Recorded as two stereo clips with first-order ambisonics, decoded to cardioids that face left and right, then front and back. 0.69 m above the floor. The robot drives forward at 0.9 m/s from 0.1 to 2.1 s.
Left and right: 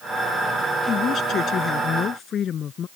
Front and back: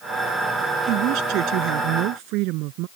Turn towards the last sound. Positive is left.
turn(degrees=150)